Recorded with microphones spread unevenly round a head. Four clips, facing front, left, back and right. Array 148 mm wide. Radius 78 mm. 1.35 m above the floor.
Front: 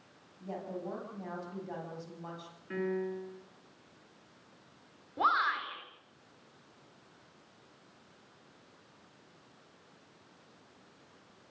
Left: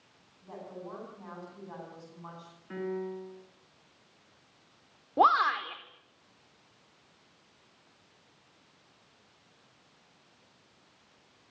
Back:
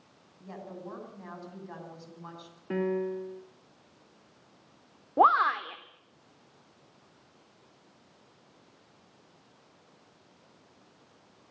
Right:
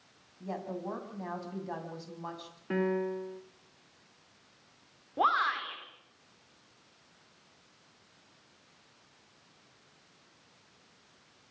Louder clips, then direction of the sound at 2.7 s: Right 5 dB, back 5 dB; 145° right.